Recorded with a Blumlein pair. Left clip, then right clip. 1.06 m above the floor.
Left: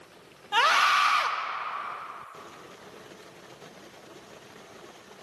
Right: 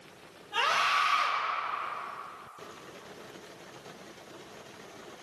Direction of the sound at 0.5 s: 35° left.